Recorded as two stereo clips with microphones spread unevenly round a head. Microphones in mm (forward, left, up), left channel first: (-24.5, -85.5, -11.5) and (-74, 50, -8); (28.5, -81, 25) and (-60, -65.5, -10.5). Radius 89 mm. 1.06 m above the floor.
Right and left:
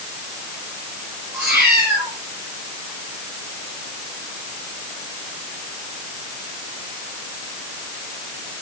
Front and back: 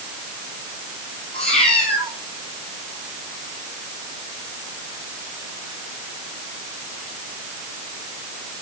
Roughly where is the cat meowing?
Ahead left.